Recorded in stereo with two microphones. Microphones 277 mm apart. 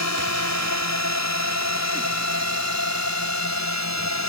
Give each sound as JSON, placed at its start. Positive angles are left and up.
{"t": 0.0, "sound": "a drone", "side_deg": 70}